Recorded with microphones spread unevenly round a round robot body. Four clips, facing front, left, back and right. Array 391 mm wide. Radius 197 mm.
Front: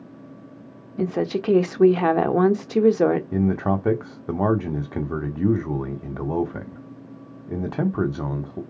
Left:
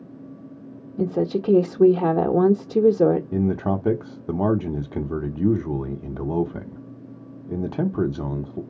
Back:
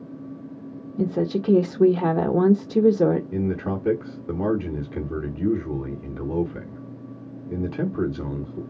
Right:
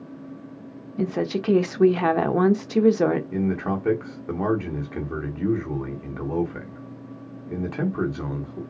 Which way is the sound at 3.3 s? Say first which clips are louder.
Left 2 dB, front 4 dB; 85° left.